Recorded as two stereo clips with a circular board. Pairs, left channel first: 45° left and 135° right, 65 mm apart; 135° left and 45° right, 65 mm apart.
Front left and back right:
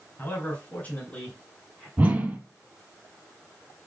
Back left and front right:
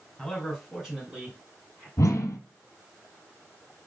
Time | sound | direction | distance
0.2 | a man speaking | 45° left | 1.8 m
2.0 | a whoosh | 165° left | 0.7 m